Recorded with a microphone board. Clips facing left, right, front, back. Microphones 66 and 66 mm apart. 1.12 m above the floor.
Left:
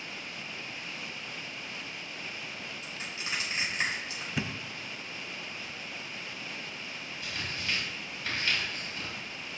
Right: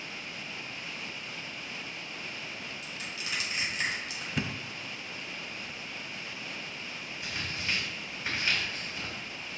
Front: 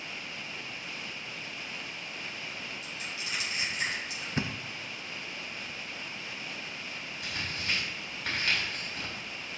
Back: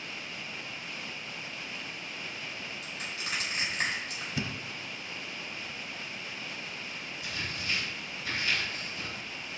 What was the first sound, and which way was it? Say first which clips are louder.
Crushing: even, back 1 dB; 150° left.